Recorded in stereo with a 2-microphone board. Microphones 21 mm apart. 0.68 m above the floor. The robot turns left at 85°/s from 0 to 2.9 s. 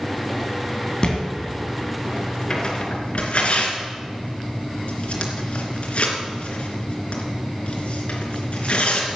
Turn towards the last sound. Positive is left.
turn(degrees=60)  # may be behind; listen again after turning